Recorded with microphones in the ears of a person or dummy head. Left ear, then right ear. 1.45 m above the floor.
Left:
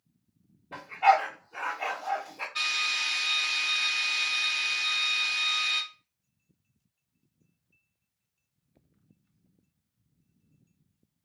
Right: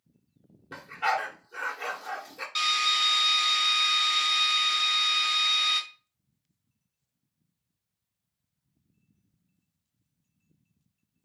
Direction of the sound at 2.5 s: 55° right (ahead or behind).